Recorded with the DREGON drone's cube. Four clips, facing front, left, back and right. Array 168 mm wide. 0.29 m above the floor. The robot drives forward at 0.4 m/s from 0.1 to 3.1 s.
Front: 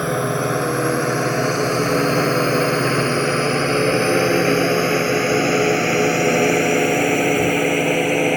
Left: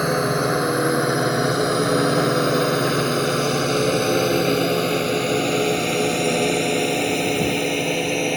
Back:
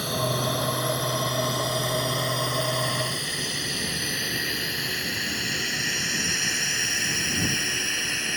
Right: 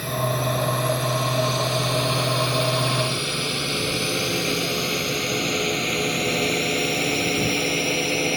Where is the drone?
50° left; by 8.4 s 5° left.